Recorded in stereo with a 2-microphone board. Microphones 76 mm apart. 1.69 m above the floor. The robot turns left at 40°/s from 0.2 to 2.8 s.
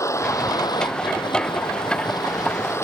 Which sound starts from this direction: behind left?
A vehicle, at 0.0 s.